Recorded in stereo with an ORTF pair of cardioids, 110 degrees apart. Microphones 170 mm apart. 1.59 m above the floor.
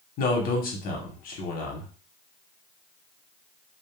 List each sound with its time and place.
0.2 s a man speaking: 65° left, 1.1 m